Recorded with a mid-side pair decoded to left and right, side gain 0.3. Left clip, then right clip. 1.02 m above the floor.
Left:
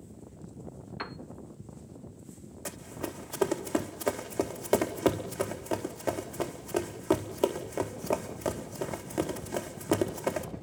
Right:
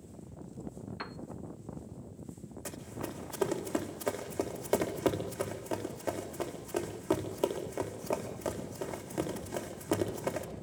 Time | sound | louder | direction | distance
1.0 | a piano | left 4 dB | 30° left | 0.6 m
2.6 | running footsteps | left 3 dB | 35° left | 4.5 m